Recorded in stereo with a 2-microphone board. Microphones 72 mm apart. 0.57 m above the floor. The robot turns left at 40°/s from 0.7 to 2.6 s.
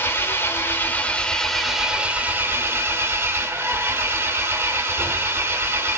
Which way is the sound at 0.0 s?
40° left.